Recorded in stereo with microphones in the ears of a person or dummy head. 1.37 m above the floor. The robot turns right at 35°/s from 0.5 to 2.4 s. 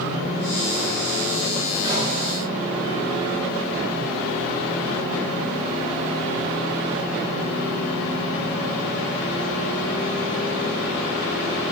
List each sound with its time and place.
1.8 s a pop: 30° right (ahead or behind), 5 m; by 2.1 s 40° right (ahead or behind), 5 m